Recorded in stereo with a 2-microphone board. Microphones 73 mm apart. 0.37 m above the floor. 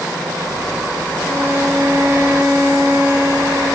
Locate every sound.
1.2 s a violin: 30° right (ahead or behind), 8 m